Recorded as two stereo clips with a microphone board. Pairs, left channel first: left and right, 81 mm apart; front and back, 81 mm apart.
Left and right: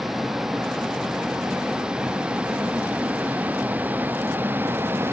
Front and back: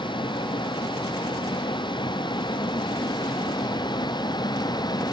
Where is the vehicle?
5° right; by 5.1 s 30° right.